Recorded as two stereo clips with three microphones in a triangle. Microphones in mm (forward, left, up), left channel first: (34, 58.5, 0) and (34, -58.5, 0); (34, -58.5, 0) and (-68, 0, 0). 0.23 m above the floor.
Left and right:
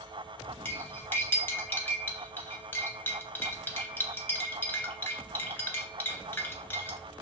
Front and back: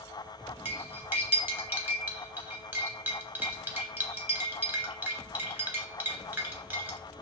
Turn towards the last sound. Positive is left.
turn(degrees=120)